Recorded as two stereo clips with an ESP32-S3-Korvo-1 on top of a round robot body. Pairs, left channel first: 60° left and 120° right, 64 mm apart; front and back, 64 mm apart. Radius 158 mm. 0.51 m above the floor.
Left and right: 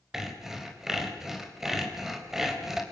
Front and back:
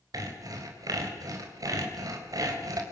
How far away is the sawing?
About 4.5 m.